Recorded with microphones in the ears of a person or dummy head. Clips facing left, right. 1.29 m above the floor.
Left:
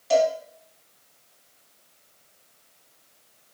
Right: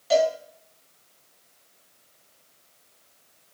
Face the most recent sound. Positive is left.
turn(degrees=-5)  # may be behind; listen again after turning